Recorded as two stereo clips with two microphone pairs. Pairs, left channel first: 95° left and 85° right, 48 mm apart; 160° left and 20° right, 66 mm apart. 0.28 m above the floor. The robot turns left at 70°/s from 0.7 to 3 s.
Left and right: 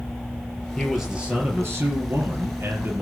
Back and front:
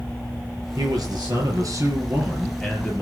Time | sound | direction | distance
0.8 | a man speaking | 15° left | 4.5 m